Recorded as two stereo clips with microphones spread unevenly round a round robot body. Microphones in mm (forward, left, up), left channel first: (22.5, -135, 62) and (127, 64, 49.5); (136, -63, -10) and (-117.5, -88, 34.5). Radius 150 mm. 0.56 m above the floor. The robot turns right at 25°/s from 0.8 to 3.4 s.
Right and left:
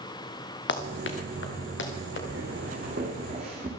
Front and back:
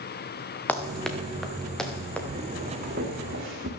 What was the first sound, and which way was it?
Running footsteps, 80° right.